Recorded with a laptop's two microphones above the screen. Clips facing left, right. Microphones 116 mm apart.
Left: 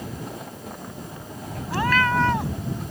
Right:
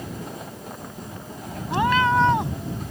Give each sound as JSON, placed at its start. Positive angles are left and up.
{"t": 1.7, "sound": "a cat meowing", "side_deg": -20}